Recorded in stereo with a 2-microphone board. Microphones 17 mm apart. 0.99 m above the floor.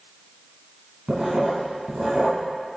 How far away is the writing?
About 2.5 m.